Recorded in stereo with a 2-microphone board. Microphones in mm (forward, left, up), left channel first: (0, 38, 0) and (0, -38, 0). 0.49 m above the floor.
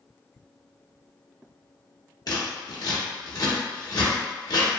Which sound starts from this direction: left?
Scissors, at 2.3 s.